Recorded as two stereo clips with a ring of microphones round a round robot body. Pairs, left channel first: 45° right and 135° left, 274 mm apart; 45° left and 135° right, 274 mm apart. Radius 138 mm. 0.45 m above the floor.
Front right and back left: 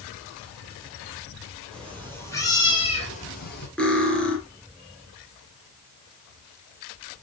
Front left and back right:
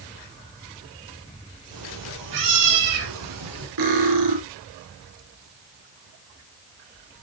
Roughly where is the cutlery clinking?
Behind right.